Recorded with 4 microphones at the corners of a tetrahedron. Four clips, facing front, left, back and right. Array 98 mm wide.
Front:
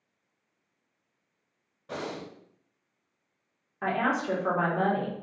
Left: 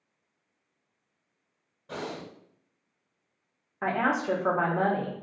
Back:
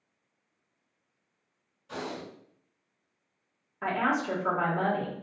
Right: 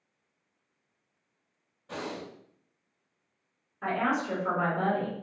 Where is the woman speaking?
85° left, 1.1 m.